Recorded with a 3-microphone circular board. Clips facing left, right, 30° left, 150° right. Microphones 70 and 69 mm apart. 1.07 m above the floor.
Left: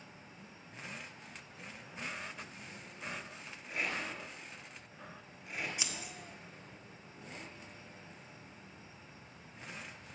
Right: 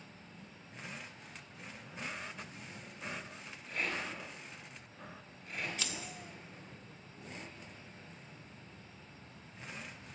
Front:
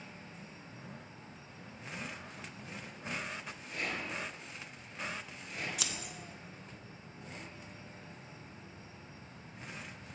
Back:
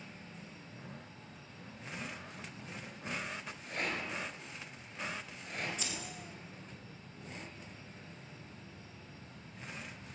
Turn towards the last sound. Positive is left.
turn(degrees=15)